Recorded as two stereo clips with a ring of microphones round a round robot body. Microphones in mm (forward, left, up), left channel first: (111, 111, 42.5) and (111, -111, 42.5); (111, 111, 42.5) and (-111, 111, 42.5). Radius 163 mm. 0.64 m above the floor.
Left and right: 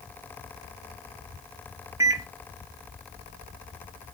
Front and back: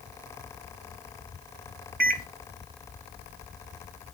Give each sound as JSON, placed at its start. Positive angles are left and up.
{"t": 2.0, "sound": "a microwave", "azimuth_deg": -160, "distance_m": 1.1}